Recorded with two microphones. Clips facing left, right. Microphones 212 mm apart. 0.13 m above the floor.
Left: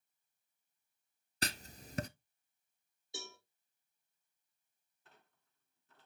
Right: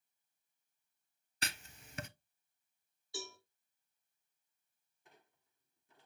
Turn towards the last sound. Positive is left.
turn(degrees=-15)  # may be behind; listen again after turning